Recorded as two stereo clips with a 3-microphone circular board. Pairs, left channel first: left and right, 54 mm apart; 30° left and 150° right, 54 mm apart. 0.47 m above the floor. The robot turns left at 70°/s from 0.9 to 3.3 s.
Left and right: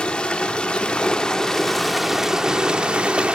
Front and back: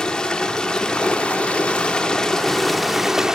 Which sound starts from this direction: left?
Running water, at 0.0 s.